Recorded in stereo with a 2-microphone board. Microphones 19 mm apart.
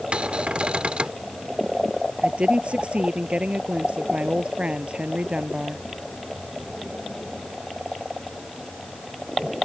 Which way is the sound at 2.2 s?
80° right.